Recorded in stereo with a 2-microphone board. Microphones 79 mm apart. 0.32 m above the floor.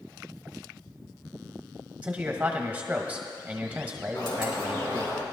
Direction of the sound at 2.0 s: 20° right (ahead or behind).